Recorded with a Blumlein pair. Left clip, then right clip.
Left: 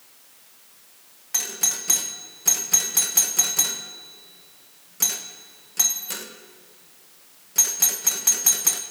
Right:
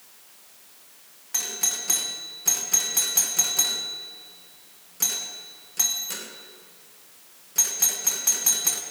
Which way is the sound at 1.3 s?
10° left.